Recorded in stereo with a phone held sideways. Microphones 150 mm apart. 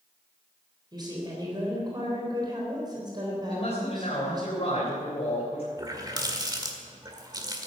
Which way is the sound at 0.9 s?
30° right (ahead or behind).